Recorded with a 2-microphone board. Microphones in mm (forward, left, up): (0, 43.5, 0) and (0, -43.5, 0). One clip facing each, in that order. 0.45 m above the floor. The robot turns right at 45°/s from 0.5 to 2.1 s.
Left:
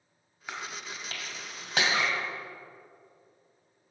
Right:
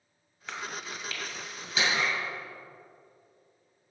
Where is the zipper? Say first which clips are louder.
Right 1 dB; 65° left (ahead or behind), 1.0 m; by 2.3 s 75° left (ahead or behind), 1.0 m.